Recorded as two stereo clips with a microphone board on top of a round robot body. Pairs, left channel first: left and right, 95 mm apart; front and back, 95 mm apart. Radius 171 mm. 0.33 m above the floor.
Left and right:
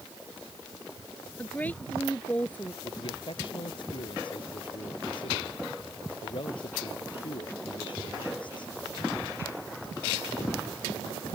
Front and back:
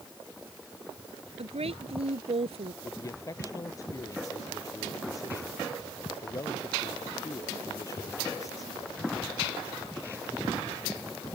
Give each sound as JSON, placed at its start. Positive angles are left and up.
{"t": 1.4, "sound": "a woman speaking", "azimuth_deg": 165}
{"t": 2.8, "sound": "a man speaking", "azimuth_deg": 55}